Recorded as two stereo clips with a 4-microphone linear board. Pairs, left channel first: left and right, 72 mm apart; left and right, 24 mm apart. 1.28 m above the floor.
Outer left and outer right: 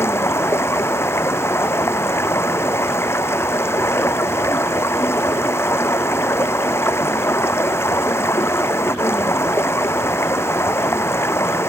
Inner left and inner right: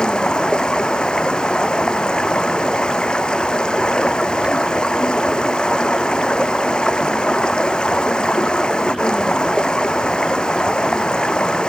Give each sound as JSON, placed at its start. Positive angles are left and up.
{"t": 0.0, "sound": "running water", "side_deg": 35}